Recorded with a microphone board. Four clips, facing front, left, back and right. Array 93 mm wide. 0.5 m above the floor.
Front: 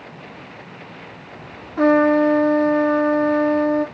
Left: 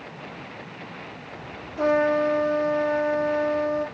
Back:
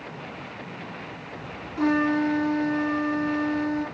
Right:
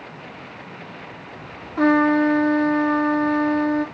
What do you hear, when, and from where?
1.8 s a trumpet: 50° right, 3.5 m